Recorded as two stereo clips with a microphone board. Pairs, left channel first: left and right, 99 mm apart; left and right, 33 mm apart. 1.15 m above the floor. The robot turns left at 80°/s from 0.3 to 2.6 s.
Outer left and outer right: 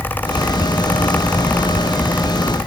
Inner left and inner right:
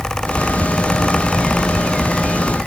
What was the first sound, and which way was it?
Only background noise.